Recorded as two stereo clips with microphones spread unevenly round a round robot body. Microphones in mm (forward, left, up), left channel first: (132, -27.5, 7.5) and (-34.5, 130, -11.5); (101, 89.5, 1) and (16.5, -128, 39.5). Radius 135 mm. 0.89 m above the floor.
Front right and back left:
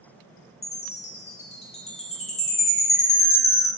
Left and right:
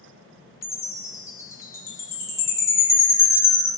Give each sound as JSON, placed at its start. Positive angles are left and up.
{"t": 0.6, "sound": "a chime", "azimuth_deg": 10, "distance_m": 1.0}